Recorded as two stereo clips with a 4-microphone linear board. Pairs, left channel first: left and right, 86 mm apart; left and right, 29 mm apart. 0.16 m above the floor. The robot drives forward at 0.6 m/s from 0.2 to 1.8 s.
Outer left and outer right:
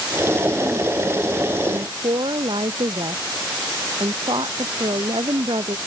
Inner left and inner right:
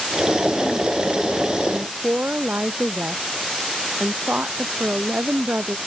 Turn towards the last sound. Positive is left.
turn(degrees=-75)  # may be behind; listen again after turning